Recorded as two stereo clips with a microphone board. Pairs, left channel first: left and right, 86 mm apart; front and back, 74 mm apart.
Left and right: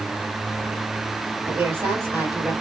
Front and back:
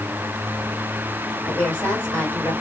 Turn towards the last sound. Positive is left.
turn(degrees=-50)